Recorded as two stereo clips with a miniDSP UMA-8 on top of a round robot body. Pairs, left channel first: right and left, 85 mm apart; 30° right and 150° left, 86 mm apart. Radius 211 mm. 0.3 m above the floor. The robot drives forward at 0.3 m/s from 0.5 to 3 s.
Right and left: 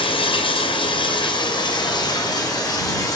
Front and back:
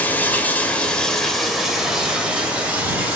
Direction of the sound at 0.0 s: 100° right.